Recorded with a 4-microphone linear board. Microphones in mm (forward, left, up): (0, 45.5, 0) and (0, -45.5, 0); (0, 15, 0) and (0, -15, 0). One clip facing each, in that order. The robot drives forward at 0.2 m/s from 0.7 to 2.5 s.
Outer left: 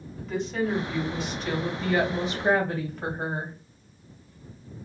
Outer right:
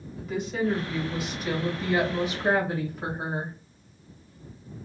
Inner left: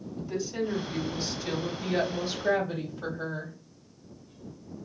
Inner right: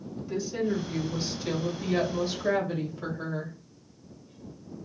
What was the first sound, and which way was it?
A woman speaking, 10° right (ahead or behind).